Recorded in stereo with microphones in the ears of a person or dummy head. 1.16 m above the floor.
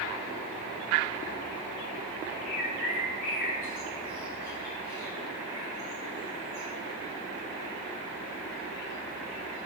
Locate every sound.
2.5 s a bird: 50° left (ahead or behind), 3 m